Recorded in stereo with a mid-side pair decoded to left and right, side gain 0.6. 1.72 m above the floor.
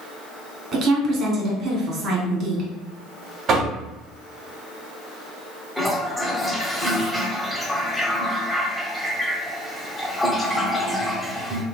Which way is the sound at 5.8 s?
5° left.